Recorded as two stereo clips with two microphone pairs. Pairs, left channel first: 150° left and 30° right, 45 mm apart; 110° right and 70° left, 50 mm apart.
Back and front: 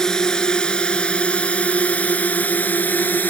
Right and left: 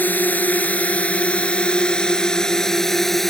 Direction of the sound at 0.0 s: 140° right.